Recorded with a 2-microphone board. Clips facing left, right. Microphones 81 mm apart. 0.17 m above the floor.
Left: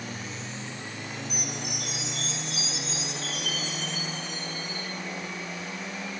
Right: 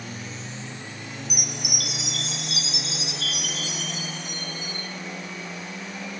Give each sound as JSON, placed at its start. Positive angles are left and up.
{"t": 1.3, "sound": "a chime", "side_deg": -85, "distance_m": 1.3}